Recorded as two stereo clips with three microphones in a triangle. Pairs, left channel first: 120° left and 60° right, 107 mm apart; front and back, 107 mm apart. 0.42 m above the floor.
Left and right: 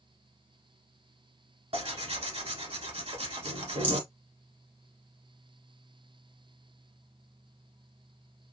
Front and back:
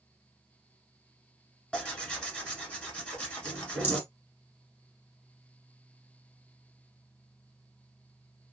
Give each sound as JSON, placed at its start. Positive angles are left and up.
{"t": 1.7, "sound": "tearing paper", "azimuth_deg": -80, "distance_m": 1.1}
{"t": 3.8, "sound": "a rattle", "azimuth_deg": 135, "distance_m": 1.3}